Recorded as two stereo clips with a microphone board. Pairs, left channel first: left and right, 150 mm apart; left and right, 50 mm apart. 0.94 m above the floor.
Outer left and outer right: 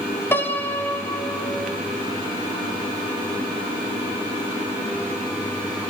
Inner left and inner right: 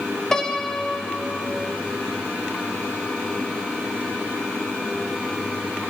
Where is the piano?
15° left (ahead or behind), 0.9 m.